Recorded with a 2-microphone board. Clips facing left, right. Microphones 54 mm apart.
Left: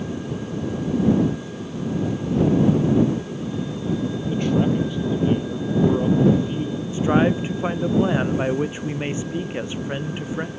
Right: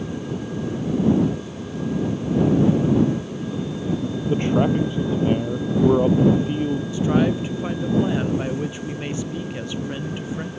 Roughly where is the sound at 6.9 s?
Left.